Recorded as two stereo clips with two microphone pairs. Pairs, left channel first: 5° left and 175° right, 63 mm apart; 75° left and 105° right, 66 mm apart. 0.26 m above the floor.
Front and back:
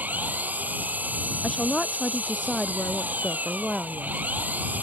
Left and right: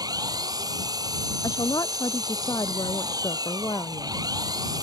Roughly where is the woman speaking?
Left.